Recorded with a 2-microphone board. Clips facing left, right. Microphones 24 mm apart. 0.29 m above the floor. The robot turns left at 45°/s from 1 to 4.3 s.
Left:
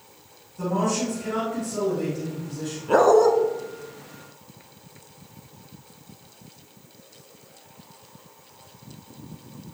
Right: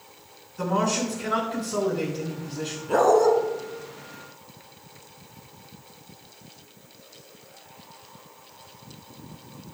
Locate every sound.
0.6 s a man speaking: 50° right, 3.5 m; by 2.8 s 130° right, 3.5 m
2.9 s a dog barking: 20° left (ahead or behind), 1.0 m; by 3.3 s 5° left (ahead or behind), 1.0 m